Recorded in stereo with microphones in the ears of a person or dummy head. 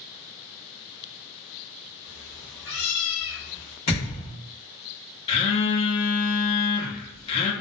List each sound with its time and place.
2.0 s a cat meowing: 35° left (ahead or behind), 0.8 m; by 3.8 s 35° right (ahead or behind), 1.1 m
3.9 s a thud: 25° left (ahead or behind), 1.1 m
5.3 s a phone buzzing: 30° left (ahead or behind), 0.5 m